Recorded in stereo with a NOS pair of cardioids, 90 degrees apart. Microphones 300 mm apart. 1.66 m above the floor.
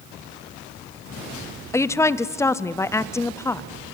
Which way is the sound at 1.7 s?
10° left.